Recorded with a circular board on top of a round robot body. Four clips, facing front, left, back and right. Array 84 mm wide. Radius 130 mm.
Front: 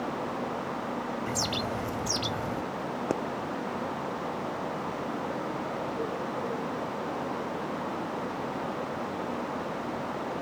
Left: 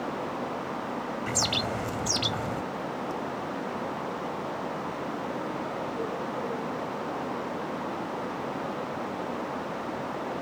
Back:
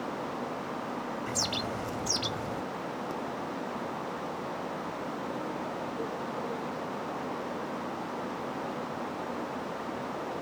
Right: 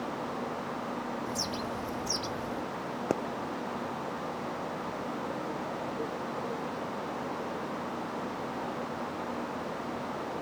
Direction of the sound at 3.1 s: 50° right.